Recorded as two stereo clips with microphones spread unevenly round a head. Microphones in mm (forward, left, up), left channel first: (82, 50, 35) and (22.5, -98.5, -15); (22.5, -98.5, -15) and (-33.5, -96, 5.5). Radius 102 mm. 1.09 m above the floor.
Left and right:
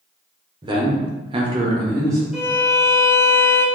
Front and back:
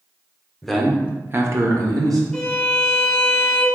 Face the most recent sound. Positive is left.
turn(degrees=115)